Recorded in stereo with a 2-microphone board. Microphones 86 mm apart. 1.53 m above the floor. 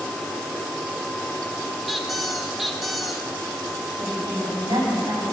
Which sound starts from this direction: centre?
A squeak, at 1.9 s.